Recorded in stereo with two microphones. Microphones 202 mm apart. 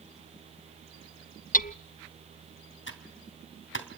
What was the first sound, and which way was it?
Hammering, 40° left (ahead or behind).